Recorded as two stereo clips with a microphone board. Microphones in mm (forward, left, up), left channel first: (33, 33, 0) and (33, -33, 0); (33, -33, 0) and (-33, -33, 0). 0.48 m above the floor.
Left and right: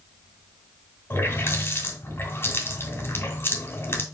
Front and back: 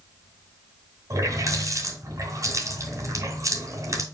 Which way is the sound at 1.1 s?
145° left.